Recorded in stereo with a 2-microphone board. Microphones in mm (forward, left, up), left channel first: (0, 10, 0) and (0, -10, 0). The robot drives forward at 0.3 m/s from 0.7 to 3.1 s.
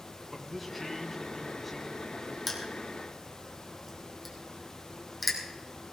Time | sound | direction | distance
0.3 | a man speaking | centre (ahead or behind) | 1.9 m
2.5 | crushing | 5° left (ahead or behind) | 3 m